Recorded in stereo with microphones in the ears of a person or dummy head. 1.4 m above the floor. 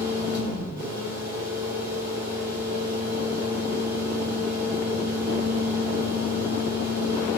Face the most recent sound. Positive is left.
turn(degrees=-15)  # may be behind; listen again after turning